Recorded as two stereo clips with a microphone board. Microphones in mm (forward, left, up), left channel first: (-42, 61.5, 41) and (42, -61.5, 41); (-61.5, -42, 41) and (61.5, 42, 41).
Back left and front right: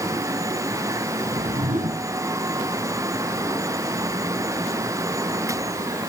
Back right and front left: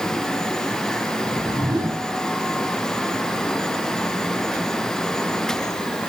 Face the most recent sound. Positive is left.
turn(degrees=-25)